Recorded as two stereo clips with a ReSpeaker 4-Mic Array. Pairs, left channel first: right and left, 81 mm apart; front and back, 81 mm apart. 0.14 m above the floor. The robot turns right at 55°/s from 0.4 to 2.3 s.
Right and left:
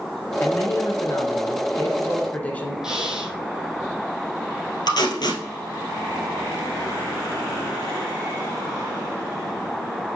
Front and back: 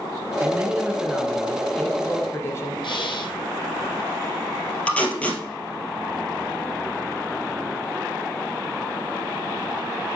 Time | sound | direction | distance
0.4 | a man speaking | 135° right | 1.9 m
2.8 | breathing | 10° left | 1.3 m
4.9 | tape being pulled | 70° right | 2 m